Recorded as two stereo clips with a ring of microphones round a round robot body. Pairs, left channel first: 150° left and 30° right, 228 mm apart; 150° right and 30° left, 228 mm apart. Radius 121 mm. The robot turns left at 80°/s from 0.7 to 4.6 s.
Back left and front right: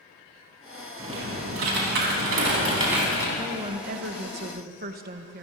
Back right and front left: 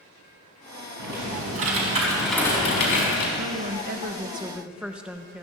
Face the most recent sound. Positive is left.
turn(degrees=-55)